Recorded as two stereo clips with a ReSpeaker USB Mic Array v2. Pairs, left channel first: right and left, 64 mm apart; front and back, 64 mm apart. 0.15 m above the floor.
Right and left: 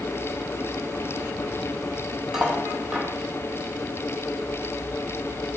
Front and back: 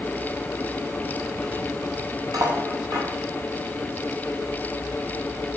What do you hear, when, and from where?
2.3 s cutlery clinking: 170° left, 2.5 m